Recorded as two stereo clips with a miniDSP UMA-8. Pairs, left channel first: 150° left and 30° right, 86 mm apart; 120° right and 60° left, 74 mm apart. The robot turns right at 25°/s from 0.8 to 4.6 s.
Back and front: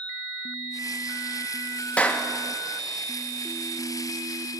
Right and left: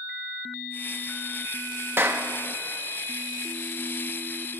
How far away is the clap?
About 0.6 m.